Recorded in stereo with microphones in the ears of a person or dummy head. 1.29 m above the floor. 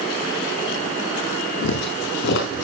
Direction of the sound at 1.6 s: 55° left (ahead or behind).